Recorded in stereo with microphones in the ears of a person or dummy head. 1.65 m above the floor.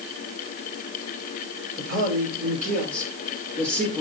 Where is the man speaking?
45° right (ahead or behind), 6 m; by 4.0 s 40° right (ahead or behind), 4.5 m.